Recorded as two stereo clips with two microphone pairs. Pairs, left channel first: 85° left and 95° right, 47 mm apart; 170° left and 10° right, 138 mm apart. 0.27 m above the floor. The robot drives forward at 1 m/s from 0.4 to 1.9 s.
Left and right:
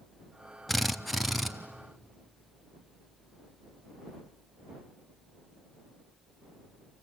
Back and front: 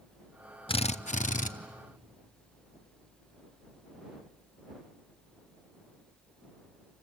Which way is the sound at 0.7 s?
165° left.